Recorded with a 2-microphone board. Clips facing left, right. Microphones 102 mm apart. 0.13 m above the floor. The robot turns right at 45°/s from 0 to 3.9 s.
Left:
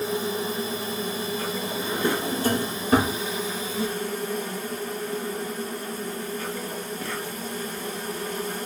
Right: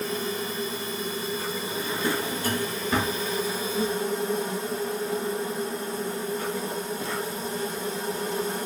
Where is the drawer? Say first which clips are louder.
Left 2 dB; 15° left (ahead or behind), 0.6 m; by 3.2 s 45° left (ahead or behind), 0.6 m.